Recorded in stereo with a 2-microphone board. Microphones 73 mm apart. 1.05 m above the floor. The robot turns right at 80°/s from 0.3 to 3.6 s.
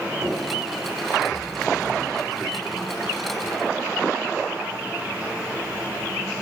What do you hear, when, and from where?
0.2 s knocking: 45° right (ahead or behind), 3 m; by 0.4 s 55° right (ahead or behind), 3 m